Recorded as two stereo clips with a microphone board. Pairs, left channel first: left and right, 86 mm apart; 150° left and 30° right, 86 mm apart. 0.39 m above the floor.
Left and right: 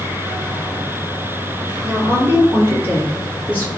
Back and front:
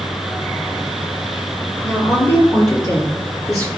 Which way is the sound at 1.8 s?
150° right.